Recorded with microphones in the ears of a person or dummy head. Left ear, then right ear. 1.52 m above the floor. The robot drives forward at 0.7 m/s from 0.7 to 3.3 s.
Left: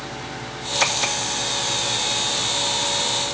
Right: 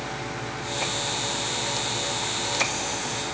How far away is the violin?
No violin in this recording.